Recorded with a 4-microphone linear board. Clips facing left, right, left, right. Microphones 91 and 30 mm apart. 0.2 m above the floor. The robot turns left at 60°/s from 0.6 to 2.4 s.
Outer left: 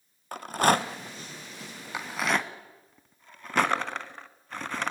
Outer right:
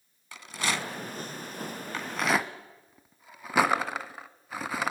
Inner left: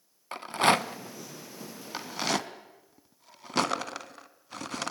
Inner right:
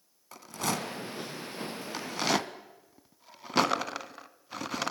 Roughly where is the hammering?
No hammering in this recording.